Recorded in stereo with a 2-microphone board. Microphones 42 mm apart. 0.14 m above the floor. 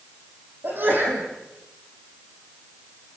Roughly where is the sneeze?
Right.